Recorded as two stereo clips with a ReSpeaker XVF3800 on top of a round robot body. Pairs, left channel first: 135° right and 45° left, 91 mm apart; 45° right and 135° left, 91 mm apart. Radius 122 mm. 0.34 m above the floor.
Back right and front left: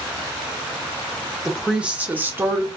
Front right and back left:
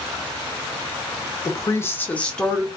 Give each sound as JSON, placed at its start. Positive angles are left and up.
{"t": 1.4, "sound": "a woman speaking", "azimuth_deg": -35, "distance_m": 1.0}